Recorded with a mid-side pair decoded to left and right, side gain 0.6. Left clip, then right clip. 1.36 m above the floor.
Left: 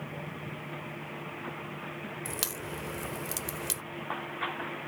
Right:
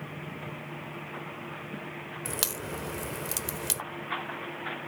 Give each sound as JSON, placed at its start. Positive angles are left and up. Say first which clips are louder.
{"t": 0.0, "sound": "a fan", "louder": "even", "azimuth_deg": 0}
{"t": 2.2, "sound": "a crack", "louder": "right 4 dB", "azimuth_deg": -20}